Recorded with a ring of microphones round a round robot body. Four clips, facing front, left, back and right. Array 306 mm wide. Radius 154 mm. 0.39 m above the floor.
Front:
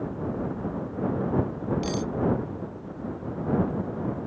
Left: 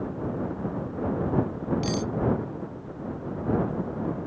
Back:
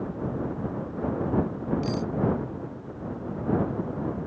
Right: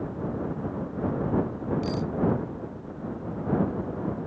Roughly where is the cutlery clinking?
Ahead left.